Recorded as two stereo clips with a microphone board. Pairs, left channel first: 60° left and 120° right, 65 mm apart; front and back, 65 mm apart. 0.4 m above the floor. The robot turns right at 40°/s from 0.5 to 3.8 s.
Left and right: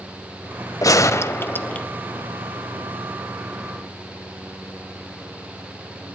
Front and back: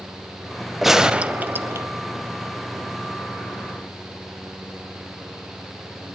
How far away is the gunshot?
About 0.6 m.